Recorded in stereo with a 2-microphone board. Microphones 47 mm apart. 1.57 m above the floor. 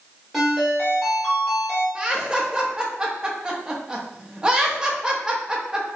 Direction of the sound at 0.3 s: Centre (ahead or behind).